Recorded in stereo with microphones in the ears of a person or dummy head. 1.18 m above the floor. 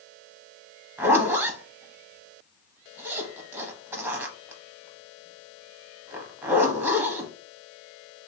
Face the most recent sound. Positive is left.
turn(degrees=-10)  # may be behind; listen again after turning